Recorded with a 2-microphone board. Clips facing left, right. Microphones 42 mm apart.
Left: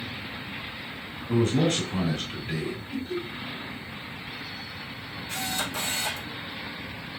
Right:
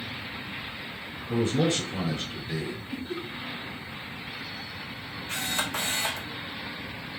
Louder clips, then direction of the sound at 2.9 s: Left 3 dB; 20° right (ahead or behind).